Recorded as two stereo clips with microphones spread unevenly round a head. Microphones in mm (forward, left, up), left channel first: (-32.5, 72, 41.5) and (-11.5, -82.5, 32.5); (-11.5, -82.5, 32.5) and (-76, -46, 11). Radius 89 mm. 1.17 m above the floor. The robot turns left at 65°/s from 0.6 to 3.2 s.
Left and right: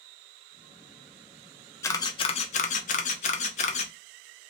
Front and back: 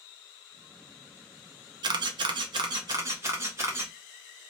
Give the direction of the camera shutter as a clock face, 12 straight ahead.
7 o'clock.